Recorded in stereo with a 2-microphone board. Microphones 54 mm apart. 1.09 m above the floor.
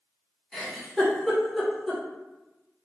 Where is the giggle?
Centre (ahead or behind), 1.3 m.